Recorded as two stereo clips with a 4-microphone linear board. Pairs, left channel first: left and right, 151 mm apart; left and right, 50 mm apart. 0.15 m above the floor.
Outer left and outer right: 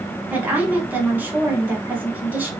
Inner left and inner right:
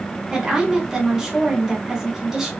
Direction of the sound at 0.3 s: 10° right (ahead or behind).